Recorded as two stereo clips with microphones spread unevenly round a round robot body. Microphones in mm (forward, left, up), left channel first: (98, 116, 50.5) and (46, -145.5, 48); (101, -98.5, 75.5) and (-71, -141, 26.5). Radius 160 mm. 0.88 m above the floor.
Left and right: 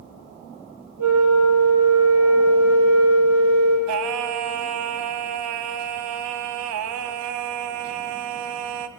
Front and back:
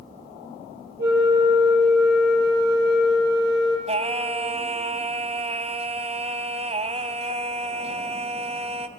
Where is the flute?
140° right, 4.5 m.